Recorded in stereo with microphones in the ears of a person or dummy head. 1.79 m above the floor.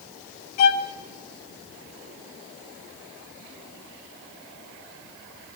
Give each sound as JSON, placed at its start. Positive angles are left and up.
{"t": 0.6, "sound": "a violin", "side_deg": 30, "distance_m": 0.8}